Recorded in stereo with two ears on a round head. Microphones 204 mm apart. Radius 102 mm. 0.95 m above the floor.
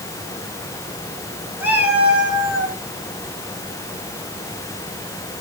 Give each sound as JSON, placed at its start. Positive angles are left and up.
{"t": 1.6, "sound": "a cat meowing", "side_deg": -10, "distance_m": 4.5}